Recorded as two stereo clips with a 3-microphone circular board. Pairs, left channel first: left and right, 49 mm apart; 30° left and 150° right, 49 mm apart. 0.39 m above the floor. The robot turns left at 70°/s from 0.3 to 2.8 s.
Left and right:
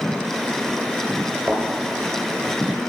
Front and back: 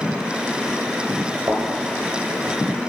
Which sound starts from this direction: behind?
A thud, at 1.5 s.